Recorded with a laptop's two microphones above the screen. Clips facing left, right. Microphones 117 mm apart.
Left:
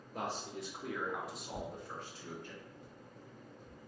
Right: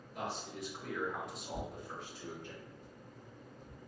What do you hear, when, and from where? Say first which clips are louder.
0.1 s a man speaking: left 1 dB; 45° left (ahead or behind), 1.1 m; by 2.5 s 20° right (ahead or behind), 1.8 m
1.5 s tearing paper: right 1 dB; 65° left (ahead or behind), 1.8 m